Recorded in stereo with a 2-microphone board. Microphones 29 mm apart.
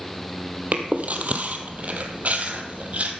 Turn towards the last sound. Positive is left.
turn(degrees=-55)  # may be behind; listen again after turning